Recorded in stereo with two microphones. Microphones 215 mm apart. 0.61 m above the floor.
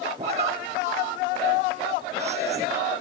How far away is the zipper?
About 3 m.